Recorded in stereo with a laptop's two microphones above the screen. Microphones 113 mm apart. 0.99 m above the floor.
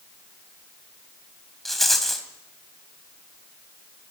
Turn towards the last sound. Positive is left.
turn(degrees=0)  # may be behind; listen again after turning